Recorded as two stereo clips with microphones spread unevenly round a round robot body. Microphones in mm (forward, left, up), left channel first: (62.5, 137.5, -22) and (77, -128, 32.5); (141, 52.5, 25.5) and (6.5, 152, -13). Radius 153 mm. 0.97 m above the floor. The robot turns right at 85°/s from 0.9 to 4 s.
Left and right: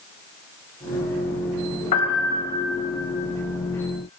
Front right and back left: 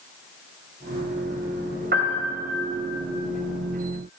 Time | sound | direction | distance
1.9 | a piano | 120° left | 3 m